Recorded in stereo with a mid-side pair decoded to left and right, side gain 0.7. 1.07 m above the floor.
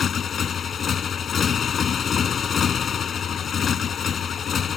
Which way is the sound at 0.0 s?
30° left.